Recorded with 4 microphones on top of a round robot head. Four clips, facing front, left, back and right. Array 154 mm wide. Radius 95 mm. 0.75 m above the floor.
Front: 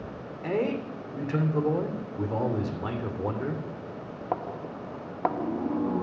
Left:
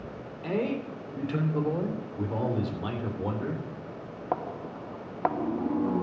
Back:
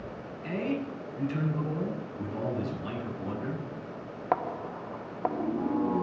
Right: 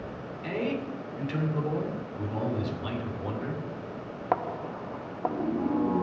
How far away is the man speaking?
About 3 m.